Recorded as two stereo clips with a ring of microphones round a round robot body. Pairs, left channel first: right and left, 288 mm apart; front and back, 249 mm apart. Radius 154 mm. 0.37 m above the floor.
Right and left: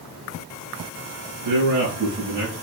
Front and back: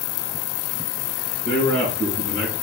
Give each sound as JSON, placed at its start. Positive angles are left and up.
{"t": 1.4, "sound": "a man speaking", "azimuth_deg": 75, "distance_m": 4.5}